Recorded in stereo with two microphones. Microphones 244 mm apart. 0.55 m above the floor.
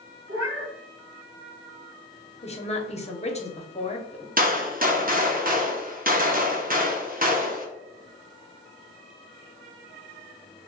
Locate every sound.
0.3 s a cat meowing: 80° right, 1.1 m
2.4 s a woman speaking: 25° left (ahead or behind), 0.8 m
4.4 s a gunshot: 35° right (ahead or behind), 0.8 m